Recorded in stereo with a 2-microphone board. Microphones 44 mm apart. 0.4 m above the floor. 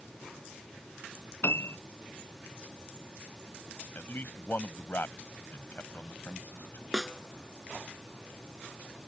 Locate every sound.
1.4 s a piano: 70° left (ahead or behind)
4.0 s a man speaking: 50° left (ahead or behind)
6.9 s a snare drum: 10° right (ahead or behind)